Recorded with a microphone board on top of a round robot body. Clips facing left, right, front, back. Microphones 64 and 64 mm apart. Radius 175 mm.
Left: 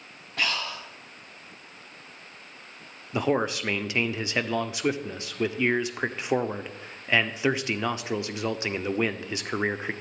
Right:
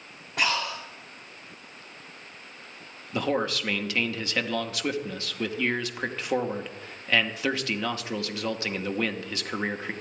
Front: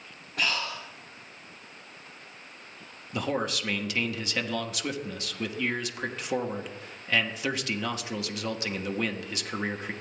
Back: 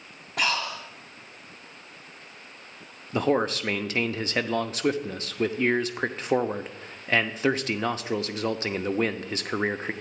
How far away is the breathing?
About 2 m.